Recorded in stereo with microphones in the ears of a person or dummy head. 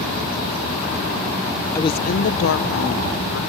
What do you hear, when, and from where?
1.8 s a woman speaking: 25° left (ahead or behind), 0.6 m; by 3.4 s 60° left (ahead or behind), 1.8 m